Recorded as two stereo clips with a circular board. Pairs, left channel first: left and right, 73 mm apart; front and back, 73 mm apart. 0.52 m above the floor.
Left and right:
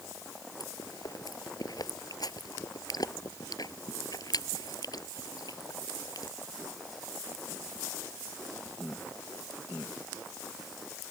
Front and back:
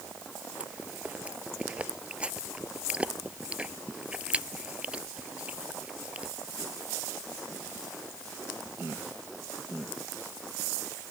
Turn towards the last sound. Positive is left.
turn(degrees=105)